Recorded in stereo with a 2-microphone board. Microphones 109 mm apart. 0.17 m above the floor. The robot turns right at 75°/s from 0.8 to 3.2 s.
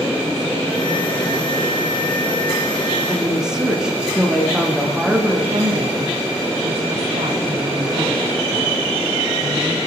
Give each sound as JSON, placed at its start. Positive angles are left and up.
{"t": 3.1, "sound": "a woman speaking", "side_deg": -15, "distance_m": 8.5}
{"t": 5.5, "sound": "a woman speaking", "side_deg": -70, "distance_m": 5.5}